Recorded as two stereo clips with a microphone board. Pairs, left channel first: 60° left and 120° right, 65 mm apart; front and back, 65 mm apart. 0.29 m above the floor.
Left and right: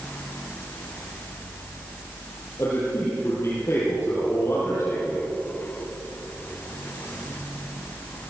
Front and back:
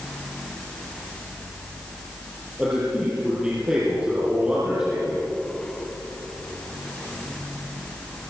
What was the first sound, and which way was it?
A man speaking, 110° left.